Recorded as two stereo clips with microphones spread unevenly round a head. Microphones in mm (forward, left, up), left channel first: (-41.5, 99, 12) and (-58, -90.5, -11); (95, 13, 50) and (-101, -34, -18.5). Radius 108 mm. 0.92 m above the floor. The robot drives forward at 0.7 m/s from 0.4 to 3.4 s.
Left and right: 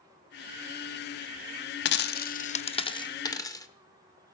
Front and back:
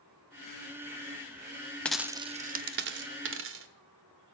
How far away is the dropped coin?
About 0.5 m.